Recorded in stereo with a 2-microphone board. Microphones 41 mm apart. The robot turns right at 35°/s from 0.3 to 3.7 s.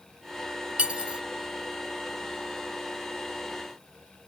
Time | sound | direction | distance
0.8 | cutlery clinking | 30° right (ahead or behind) | ?